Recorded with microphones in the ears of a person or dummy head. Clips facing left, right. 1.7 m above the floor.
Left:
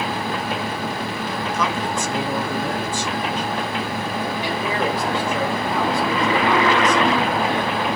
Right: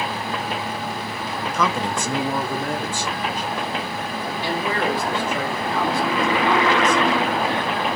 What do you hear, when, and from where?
1.5 s a man speaking: 80° right, 0.6 m; by 3.5 s 45° right (ahead or behind), 1.6 m
4.4 s a man speaking: 15° left (ahead or behind), 1.6 m